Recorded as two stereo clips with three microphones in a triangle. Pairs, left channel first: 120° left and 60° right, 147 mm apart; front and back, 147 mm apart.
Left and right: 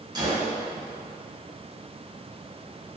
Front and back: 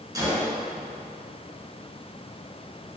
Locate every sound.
0.1 s a gunshot: 115° right, 0.7 m